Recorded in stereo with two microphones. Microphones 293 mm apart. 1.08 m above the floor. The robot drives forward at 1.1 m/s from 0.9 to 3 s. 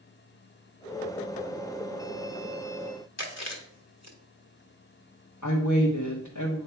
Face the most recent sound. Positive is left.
turn(degrees=75)  # may be behind; listen again after turning